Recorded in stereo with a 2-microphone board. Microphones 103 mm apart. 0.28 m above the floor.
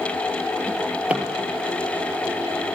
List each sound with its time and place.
0.7 s a drawer: 15° right (ahead or behind), 3 m